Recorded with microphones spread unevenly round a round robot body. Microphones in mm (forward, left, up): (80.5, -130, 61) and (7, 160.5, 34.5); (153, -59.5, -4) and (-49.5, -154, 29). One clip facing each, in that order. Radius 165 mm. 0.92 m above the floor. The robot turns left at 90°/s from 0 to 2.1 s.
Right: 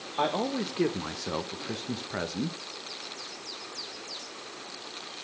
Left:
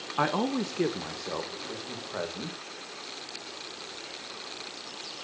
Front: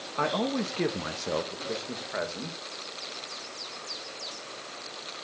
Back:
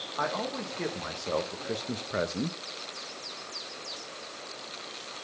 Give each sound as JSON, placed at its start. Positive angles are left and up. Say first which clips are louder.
{"t": 0.2, "sound": "a man speaking", "louder": "left 1 dB, front 6 dB", "azimuth_deg": 65, "distance_m": 1.2}